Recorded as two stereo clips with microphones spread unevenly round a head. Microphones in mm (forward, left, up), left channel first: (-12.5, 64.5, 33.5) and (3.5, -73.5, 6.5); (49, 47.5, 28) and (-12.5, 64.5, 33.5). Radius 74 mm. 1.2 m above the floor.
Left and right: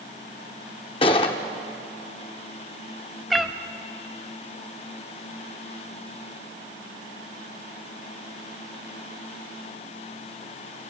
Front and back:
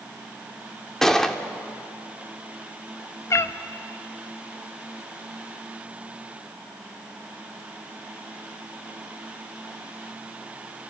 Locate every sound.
1.0 s a gunshot: 70° left, 1.1 m
3.3 s a cat meowing: 15° left, 0.6 m